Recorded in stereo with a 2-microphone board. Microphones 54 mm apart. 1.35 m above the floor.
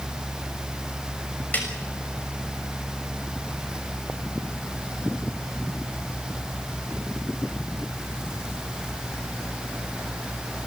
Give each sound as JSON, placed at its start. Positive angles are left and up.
{"t": 1.5, "sound": "a snare drum", "side_deg": 30, "distance_m": 6.5}